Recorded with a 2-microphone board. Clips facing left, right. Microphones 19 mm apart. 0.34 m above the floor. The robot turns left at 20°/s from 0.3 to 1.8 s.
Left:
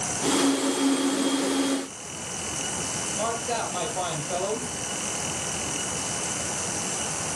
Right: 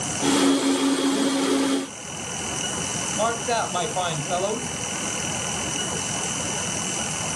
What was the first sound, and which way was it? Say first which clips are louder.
A man speaking: right 5 dB; 35° right (ahead or behind).